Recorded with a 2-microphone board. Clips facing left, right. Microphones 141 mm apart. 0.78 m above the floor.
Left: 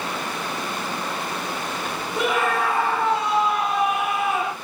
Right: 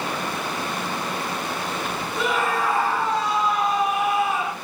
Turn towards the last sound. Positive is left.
turn(degrees=65)  # may be behind; listen again after turning